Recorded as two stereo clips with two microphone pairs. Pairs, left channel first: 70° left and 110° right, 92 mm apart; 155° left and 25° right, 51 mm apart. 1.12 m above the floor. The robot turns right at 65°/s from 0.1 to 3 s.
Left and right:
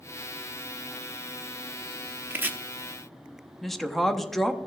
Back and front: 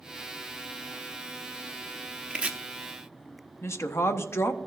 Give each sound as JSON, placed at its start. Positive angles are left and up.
{"t": 2.3, "sound": "chopping", "azimuth_deg": -70, "distance_m": 0.7}
{"t": 3.6, "sound": "a woman speaking", "azimuth_deg": 160, "distance_m": 0.8}